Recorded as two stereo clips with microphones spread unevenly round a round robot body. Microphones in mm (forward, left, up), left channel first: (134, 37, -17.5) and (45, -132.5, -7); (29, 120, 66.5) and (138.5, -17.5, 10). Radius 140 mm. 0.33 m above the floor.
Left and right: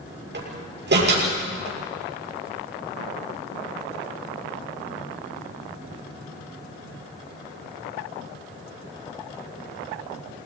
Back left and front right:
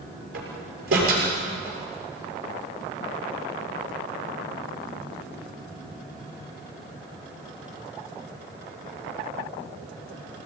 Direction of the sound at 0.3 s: 95° right.